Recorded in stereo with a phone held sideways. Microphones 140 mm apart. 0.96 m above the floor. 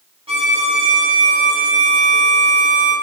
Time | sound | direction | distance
0.3 | a violin | 40° right (ahead or behind) | 2.5 m